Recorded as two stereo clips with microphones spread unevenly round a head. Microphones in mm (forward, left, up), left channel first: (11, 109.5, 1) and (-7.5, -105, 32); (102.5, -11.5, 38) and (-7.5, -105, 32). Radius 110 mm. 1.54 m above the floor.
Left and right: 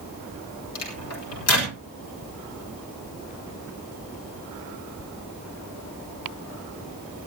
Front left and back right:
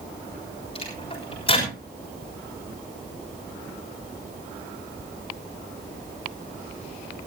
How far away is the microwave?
About 4.5 m.